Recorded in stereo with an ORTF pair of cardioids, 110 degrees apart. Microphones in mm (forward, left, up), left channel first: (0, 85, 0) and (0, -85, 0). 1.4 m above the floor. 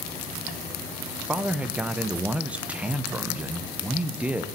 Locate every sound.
1.3 s a man speaking: 5° right, 0.6 m